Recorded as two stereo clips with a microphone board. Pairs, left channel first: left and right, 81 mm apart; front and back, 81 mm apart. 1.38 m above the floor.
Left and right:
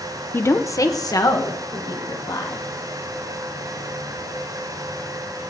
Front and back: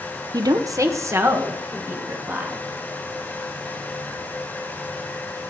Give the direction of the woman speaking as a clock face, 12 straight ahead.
7 o'clock.